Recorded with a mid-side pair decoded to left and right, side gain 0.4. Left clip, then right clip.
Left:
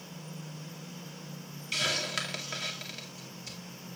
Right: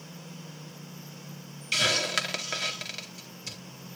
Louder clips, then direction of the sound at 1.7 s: Right 5 dB; 45° right.